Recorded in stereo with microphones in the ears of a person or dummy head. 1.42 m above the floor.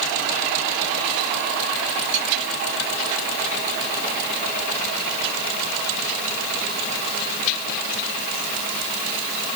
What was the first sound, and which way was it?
Only background noise.